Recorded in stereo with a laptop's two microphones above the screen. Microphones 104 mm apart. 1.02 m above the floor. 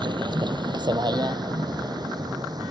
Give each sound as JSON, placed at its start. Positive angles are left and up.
{"t": 0.0, "sound": "a vehicle", "side_deg": -45}